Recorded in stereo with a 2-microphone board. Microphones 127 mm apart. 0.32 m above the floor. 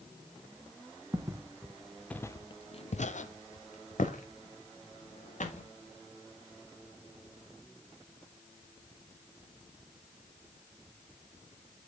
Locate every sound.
1.1 s footsteps: 25° right (ahead or behind), 1.0 m; by 5.7 s 70° left (ahead or behind), 2 m